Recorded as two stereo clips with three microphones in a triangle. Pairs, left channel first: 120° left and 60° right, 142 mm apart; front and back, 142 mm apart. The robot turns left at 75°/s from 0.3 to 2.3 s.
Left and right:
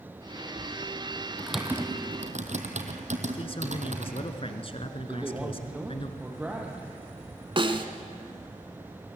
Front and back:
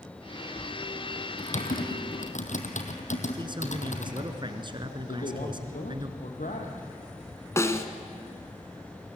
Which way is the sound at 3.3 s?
140° left.